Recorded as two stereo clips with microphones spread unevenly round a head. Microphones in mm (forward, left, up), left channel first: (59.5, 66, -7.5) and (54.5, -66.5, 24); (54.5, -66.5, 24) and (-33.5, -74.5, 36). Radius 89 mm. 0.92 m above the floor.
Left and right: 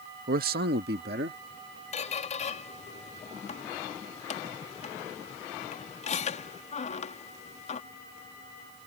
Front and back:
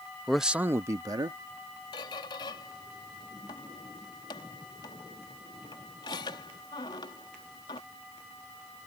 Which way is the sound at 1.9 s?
55° left.